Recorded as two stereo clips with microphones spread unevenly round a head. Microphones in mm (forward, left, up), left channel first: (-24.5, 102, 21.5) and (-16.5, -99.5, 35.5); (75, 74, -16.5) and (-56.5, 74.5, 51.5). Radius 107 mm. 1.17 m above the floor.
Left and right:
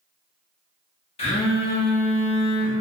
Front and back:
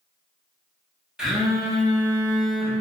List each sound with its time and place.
1.2 s a phone buzzing: 145° left, 0.5 m